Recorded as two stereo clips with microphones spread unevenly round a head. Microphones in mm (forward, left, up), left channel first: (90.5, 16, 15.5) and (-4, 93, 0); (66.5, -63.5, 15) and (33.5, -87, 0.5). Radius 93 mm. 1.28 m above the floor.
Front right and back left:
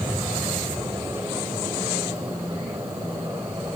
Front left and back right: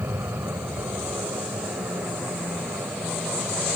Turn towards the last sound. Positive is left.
turn(degrees=-140)